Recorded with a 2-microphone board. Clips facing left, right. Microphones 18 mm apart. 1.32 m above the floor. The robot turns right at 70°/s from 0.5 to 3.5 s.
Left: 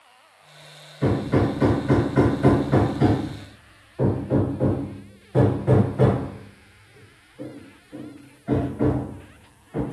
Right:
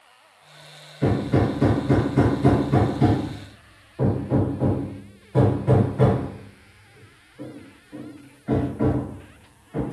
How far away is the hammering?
About 1.1 m.